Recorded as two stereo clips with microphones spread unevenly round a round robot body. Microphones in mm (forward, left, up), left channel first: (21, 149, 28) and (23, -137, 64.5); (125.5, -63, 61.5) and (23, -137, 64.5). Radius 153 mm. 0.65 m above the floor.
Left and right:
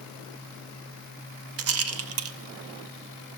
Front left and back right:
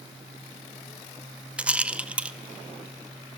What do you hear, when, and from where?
1.6 s a rattle: 65° right, 0.7 m